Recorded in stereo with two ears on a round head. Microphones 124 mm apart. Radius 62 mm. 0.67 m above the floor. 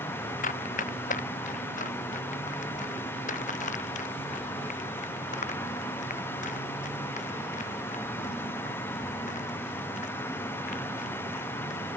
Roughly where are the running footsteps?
Left.